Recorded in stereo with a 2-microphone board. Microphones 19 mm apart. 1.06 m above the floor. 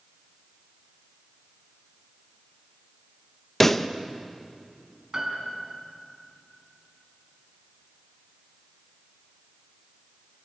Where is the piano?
30° right (ahead or behind), 4 m.